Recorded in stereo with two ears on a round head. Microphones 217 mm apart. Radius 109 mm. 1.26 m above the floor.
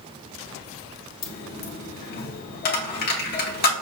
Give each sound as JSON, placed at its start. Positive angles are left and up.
{"t": 1.2, "sound": "a dropped coin", "side_deg": 40, "distance_m": 1.1}